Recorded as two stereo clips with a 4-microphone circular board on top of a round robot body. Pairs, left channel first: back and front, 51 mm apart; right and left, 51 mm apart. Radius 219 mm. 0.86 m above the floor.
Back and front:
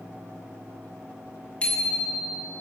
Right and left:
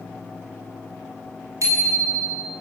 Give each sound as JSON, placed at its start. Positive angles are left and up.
{"t": 1.6, "sound": "a bicycle bell", "azimuth_deg": 110, "distance_m": 6.5}